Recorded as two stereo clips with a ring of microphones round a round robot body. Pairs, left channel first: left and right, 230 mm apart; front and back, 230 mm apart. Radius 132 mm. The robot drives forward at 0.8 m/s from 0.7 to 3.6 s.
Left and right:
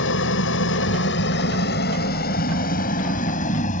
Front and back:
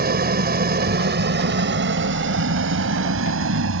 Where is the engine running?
130° left; by 3.8 s 150° left.